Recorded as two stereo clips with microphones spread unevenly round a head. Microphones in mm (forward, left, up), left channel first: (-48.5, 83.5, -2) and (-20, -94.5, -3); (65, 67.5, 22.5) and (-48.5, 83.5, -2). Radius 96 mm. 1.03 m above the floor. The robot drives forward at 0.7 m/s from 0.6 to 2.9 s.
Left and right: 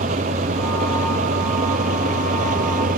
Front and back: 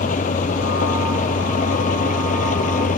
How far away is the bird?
I don't hear a bird.